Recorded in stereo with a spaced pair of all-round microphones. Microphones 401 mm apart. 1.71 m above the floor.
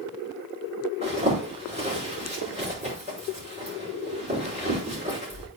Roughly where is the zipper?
Centre.